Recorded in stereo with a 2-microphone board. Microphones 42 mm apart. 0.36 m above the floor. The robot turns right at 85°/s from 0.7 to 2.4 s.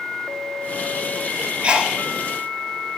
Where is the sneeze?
30° right (ahead or behind), 1.2 m; by 1.9 s 15° right (ahead or behind), 1.2 m.